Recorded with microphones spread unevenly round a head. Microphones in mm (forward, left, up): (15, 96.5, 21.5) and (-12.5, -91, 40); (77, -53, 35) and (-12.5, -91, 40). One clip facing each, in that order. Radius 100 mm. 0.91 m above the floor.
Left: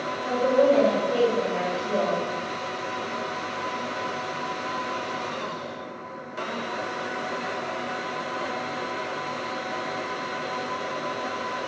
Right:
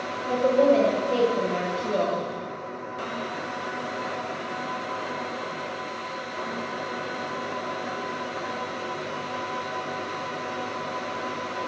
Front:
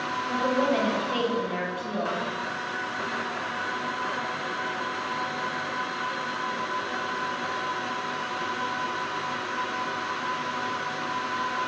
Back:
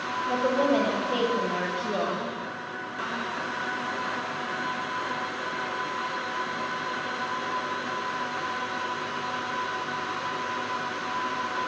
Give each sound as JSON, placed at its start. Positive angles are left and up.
{"t": 0.3, "sound": "a woman speaking", "azimuth_deg": -120, "distance_m": 0.6}